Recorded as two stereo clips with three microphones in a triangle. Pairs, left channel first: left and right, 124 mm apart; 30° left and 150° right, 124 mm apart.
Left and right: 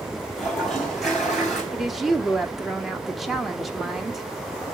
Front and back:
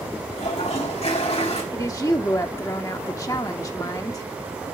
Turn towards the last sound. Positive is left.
turn(degrees=-5)